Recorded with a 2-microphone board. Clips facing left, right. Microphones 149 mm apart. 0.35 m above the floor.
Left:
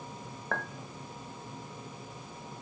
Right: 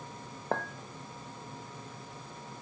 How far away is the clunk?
No clunk in this recording.